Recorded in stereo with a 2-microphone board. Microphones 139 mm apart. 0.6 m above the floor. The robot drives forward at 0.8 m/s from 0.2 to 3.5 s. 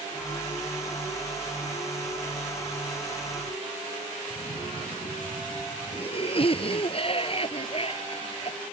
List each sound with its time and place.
4.3 s a cough: 45° left (ahead or behind)